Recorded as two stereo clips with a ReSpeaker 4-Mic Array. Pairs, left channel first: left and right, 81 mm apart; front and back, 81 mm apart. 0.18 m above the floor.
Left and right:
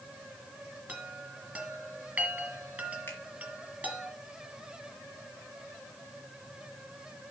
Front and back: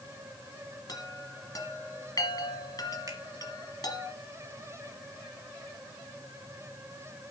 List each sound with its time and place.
0.9 s a chime: 20° right, 2 m
3.1 s a finger snap: 150° left, 2.5 m